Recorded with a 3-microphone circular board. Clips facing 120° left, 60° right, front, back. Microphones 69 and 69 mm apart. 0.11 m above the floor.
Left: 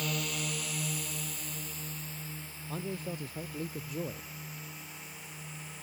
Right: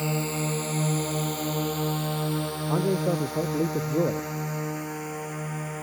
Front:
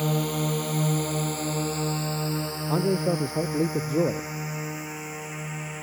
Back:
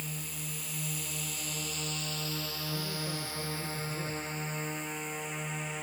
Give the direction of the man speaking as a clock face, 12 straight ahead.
1 o'clock.